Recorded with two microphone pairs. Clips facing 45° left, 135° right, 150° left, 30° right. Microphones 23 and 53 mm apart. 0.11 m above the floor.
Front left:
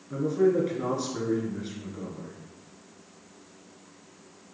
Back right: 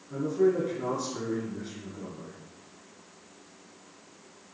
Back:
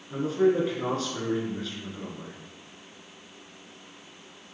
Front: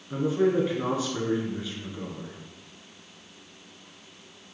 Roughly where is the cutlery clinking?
I don't hear cutlery clinking.